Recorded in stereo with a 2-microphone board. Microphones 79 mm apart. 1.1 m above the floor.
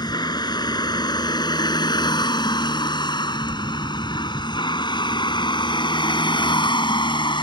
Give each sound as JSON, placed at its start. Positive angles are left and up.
{"t": 0.0, "sound": "a vehicle", "side_deg": 65}